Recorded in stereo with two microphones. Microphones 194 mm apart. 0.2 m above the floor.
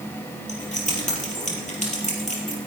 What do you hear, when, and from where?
0.5 s keys jangling: 40° left (ahead or behind), 4 m